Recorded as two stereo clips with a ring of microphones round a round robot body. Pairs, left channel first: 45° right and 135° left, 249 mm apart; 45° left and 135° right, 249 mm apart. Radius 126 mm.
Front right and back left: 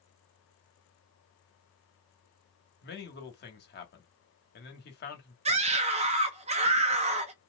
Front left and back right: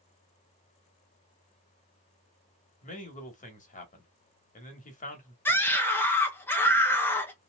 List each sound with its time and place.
2.8 s a man speaking: 5° right, 1.4 m
5.5 s a scream: 115° left, 0.7 m